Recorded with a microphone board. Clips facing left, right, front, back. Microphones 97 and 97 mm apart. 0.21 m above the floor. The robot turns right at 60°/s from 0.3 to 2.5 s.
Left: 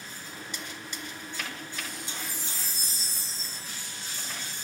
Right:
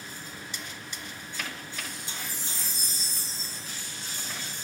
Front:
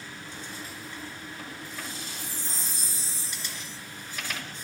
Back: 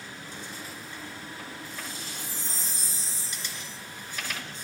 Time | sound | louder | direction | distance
2.1 | a chime | even, even | 135° left | 0.9 m